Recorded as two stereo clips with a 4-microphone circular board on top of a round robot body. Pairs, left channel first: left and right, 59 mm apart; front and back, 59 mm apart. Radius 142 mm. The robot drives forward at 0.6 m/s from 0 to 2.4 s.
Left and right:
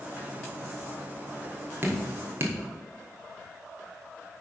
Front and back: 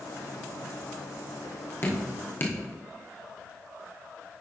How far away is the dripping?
About 1.6 m.